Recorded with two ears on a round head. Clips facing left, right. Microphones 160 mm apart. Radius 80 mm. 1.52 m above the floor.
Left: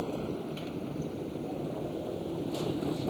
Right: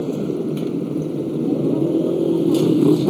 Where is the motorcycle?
60° right (ahead or behind); by 3.1 s 80° right.